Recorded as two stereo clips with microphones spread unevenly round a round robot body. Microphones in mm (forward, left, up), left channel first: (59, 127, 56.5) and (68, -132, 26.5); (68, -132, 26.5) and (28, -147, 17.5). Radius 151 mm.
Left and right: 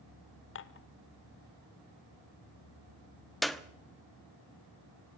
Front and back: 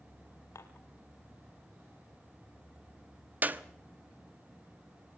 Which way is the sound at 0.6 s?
50° left.